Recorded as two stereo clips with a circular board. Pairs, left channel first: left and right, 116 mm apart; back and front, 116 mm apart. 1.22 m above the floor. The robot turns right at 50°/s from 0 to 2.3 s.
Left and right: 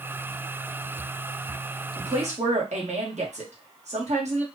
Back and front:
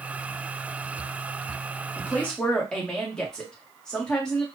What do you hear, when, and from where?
2.0 s a woman speaking: 115° right, 1.5 m; by 4.5 s 95° right, 1.5 m